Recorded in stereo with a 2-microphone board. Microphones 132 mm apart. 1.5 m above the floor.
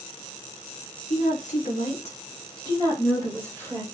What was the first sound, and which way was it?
A woman speaking, 80° left.